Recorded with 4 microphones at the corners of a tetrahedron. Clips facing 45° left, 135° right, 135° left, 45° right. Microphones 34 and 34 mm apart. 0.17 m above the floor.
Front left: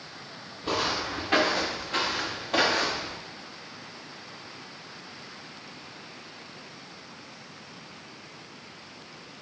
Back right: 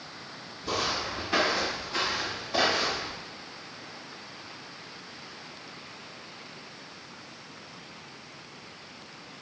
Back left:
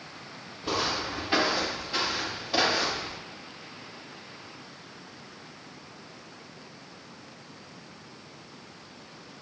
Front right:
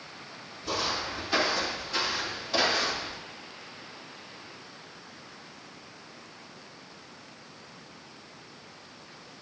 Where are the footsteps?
85° left, 5.5 m; by 3.2 s 50° left, 6 m.